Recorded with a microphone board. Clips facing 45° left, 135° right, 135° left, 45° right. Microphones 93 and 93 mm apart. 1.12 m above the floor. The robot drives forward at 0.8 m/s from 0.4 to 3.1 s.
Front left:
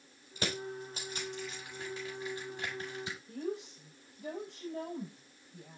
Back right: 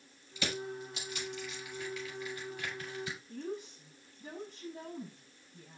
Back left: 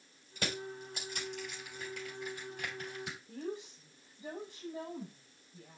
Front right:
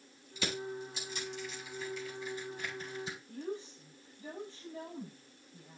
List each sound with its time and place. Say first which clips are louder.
0.4 s crushing: even, front right 2 dB; 95° left, 7 m; by 3.2 s 110° left, 7.5 m
3.3 s a woman speaking: front left 2 dB, back left 1 dB; 65° left, 6 m